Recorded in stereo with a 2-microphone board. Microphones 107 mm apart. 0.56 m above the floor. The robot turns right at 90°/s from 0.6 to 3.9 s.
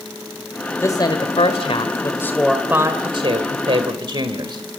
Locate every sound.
0.8 s a woman speaking: 30° left, 1.9 m; by 4.6 s 55° right, 1.9 m